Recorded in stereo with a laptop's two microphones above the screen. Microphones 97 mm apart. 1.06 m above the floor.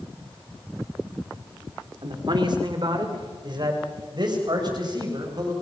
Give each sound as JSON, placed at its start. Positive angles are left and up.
{"t": 2.0, "sound": "a man speaking", "side_deg": -50, "distance_m": 2.5}